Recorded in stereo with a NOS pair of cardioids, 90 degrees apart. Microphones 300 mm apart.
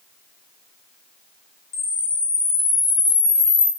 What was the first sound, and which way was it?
A camera shutter, 35° left.